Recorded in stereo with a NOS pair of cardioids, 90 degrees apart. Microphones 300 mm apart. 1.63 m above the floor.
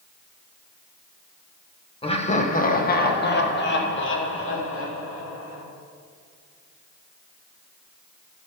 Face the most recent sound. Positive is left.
turn(degrees=50)